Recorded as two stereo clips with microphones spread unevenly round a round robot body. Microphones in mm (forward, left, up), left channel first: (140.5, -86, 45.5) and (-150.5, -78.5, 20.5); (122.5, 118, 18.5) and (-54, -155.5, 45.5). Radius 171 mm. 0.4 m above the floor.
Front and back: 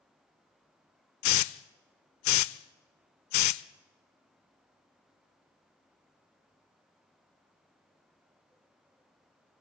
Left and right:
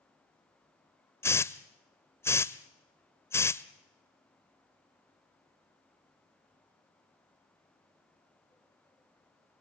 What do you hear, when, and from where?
1.2 s a hiss: 25° right, 0.6 m